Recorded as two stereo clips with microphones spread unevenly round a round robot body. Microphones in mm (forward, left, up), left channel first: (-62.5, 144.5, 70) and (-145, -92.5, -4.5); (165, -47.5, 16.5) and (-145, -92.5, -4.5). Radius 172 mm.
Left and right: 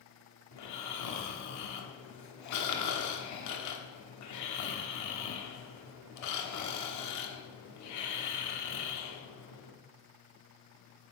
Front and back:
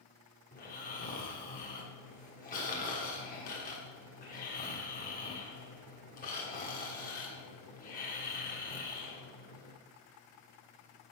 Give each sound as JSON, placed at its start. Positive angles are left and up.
{"t": 0.5, "sound": "snoring", "azimuth_deg": 75, "distance_m": 1.2}